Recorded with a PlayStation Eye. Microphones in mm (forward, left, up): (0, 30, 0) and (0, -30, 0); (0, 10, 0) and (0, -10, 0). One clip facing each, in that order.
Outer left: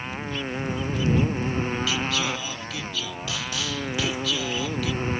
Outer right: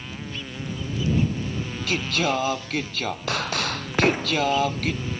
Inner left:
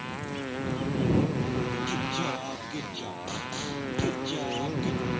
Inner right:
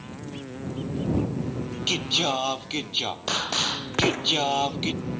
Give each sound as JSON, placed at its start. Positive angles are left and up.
{"t": 0.0, "sound": "a motorcycle", "side_deg": 35}
{"t": 1.9, "sound": "singing", "side_deg": -55}
{"t": 3.9, "sound": "an explosion", "side_deg": -50}